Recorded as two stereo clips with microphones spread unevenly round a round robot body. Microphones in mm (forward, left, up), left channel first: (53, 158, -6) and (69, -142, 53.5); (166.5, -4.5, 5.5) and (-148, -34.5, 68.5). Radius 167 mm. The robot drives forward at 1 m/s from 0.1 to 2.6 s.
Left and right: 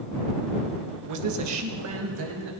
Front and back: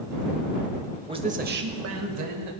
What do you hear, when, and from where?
1.1 s a man speaking: 90° right, 1.5 m; by 2.5 s 145° right, 2 m